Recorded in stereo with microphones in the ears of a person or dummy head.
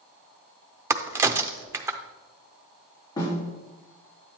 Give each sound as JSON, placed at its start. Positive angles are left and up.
{"t": 0.9, "sound": "a crack", "side_deg": -15, "distance_m": 0.6}
{"t": 3.2, "sound": "a snare drum", "side_deg": 20, "distance_m": 3.5}